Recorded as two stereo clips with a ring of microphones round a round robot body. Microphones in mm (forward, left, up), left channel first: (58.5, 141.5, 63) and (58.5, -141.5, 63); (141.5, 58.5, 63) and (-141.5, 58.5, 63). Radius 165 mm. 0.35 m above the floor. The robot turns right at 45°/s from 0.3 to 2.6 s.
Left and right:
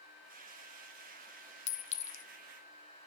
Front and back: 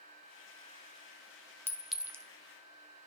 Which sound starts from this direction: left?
A clink, at 1.7 s.